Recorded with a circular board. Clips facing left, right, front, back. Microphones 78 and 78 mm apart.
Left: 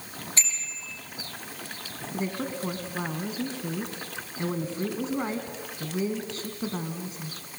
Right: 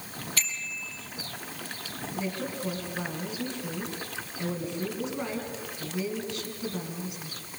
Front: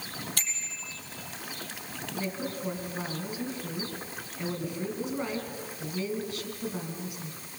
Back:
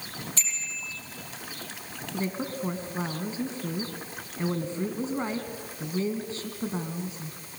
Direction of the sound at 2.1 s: 130° left.